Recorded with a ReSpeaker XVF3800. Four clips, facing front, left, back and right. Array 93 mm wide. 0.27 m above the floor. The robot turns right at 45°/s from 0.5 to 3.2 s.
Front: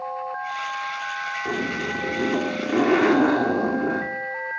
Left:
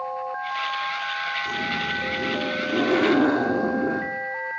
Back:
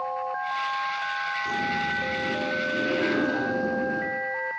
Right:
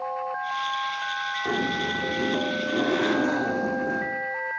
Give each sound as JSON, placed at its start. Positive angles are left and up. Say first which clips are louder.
{"t": 1.4, "sound": "a zipper", "louder": "right 1 dB, front 1 dB", "azimuth_deg": -45, "distance_m": 8.5}